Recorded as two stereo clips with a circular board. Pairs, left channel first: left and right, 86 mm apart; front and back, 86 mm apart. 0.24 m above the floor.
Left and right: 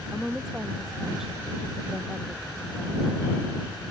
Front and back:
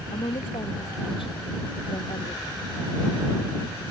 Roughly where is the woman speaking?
Ahead.